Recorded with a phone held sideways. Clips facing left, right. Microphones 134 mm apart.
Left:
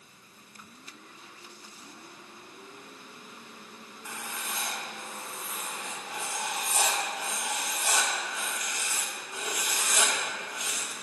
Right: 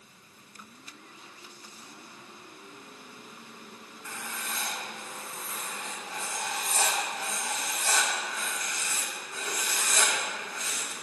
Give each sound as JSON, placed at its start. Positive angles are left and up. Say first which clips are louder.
{"t": 4.0, "sound": "writing", "louder": "even", "side_deg": 15, "distance_m": 1.0}